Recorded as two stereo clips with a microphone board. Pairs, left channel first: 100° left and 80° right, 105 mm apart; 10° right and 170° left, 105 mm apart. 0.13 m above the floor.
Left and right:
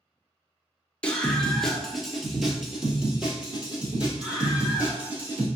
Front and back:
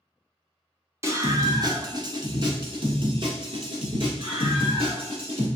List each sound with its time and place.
1.0 s a scream: 165° left, 1.2 m; by 5.5 s 155° right, 3 m